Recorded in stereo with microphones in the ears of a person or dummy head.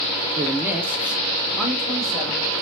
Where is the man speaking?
15° right (ahead or behind), 0.6 m; by 2.6 s centre (ahead or behind), 2.0 m.